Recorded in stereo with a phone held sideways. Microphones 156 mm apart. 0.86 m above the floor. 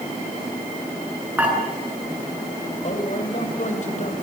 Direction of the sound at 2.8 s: 50° left (ahead or behind).